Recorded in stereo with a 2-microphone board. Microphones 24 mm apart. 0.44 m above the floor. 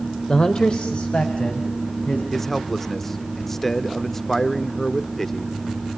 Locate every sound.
0.3 s a man speaking: 30° left (ahead or behind), 1.4 m; by 2.2 s 60° left (ahead or behind), 3.5 m
2.3 s a man speaking: 15° left (ahead or behind), 0.8 m